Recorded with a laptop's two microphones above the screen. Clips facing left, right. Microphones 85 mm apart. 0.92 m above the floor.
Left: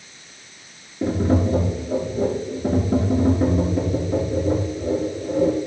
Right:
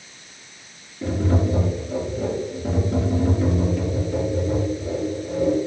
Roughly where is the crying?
I don't hear crying.